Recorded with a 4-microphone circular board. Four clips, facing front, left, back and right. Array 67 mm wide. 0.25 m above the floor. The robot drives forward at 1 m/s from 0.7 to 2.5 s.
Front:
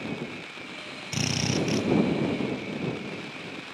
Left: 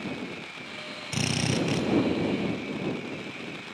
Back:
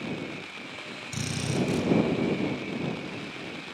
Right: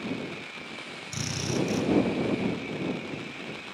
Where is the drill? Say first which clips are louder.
Left 3 dB, front 2 dB; 55° left, 3 m; by 1.9 s 70° left, 2.5 m.